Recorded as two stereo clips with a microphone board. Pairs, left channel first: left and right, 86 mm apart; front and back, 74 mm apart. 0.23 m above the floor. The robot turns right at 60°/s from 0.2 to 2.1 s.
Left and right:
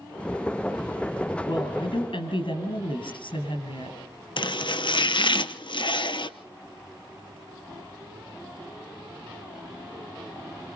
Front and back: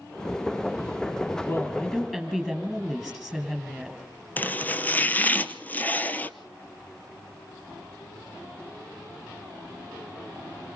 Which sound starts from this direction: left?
Chopping, at 4.4 s.